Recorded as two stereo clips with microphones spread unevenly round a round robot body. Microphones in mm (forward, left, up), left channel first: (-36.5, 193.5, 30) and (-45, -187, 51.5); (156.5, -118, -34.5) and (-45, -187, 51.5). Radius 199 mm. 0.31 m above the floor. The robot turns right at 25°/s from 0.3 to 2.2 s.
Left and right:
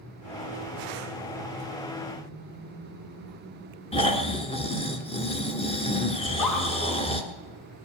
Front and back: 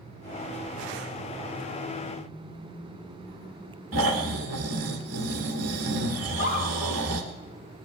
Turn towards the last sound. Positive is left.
turn(degrees=60)